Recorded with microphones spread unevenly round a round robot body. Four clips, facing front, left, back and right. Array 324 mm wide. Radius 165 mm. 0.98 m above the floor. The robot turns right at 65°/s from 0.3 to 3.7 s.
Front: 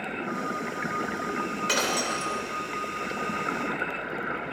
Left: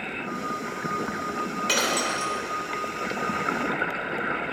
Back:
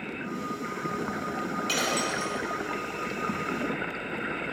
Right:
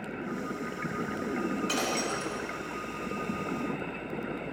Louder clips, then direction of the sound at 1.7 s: Left 4 dB, front 1 dB; 40° left.